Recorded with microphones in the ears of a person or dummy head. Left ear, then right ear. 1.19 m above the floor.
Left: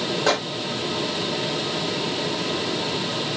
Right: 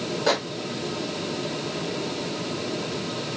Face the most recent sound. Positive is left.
turn(degrees=20)  # may be behind; listen again after turning